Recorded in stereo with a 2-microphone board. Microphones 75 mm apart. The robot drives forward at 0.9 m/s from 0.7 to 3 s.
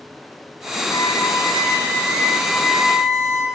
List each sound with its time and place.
0.9 s a violin: 80° left, 1.5 m; by 3.5 s 35° left (ahead or behind), 2.5 m